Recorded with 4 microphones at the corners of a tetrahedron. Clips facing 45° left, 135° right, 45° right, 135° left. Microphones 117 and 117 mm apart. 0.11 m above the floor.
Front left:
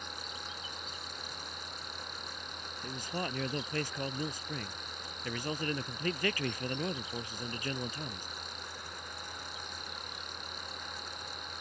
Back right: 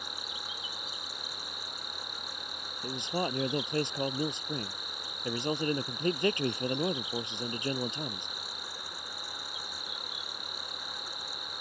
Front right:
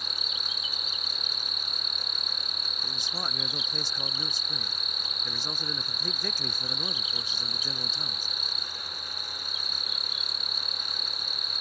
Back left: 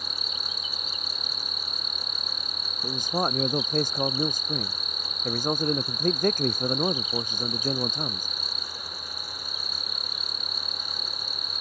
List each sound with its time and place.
0.0 s an insect: 145° left
2.8 s a man speaking: 165° left